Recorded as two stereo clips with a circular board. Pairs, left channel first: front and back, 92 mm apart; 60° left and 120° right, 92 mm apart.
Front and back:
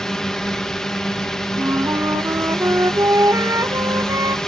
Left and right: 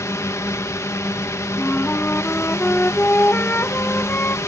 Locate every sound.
0.0 s a drone: 80° left
1.6 s a flute: 130° left